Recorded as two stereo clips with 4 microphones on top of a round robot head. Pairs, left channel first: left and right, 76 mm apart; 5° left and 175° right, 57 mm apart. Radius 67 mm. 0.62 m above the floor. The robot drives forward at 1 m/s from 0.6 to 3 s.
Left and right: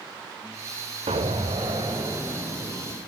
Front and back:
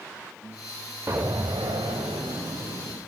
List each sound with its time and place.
1.1 s an explosion: 110° right, 0.8 m; by 3.0 s 160° right, 2.5 m